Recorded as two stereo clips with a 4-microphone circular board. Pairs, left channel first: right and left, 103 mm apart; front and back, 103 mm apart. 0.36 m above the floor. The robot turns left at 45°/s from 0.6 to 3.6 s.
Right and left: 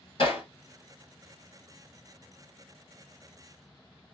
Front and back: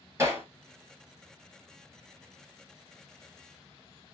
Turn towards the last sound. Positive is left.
turn(degrees=110)